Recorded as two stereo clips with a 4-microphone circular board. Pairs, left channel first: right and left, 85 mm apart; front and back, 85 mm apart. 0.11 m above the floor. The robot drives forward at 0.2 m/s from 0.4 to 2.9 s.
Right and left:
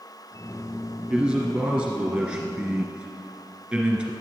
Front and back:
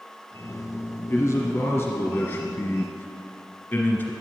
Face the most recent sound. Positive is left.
turn(degrees=35)